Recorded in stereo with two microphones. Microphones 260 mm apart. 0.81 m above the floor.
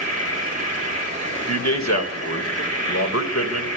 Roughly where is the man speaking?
Left.